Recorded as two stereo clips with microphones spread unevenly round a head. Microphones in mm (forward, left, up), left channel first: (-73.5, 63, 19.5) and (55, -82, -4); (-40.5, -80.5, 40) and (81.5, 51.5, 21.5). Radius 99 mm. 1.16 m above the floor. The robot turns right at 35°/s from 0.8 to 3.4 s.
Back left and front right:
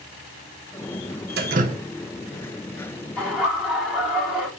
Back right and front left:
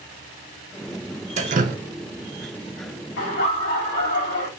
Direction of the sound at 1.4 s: 5° right.